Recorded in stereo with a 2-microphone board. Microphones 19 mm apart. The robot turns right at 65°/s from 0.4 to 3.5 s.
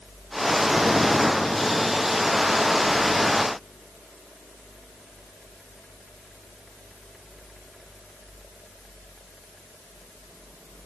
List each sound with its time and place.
Only background noise.